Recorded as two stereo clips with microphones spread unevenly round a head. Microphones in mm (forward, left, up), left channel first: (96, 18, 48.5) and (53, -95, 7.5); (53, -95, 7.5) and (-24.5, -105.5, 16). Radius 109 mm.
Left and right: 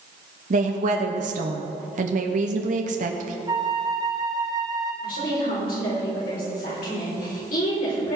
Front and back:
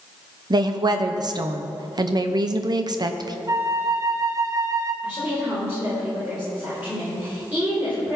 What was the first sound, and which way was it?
A woman speaking, 135° right.